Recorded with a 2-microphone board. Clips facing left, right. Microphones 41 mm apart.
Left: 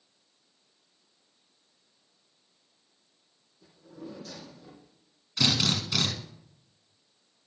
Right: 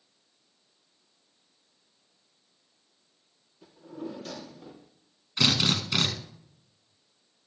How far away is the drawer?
About 3 m.